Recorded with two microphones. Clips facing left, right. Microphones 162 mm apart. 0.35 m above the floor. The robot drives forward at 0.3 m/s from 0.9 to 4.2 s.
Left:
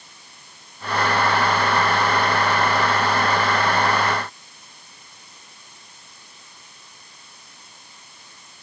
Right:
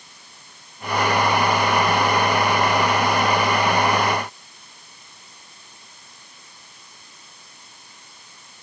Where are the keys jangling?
No keys jangling in this recording.